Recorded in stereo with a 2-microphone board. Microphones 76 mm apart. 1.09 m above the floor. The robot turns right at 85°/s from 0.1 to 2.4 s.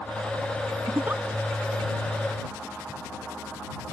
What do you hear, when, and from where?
0.9 s a giggle: 45° right (ahead or behind); by 1.2 s 15° right (ahead or behind)